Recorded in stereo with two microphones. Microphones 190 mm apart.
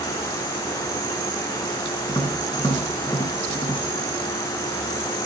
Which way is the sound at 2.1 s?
20° left (ahead or behind).